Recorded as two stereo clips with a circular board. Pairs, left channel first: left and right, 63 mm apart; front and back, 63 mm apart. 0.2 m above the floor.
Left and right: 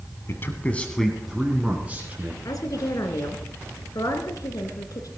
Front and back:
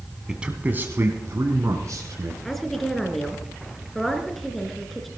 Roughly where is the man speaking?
Left.